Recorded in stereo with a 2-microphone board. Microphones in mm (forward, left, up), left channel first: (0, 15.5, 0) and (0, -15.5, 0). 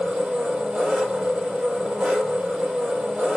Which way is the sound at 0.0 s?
40° right (ahead or behind).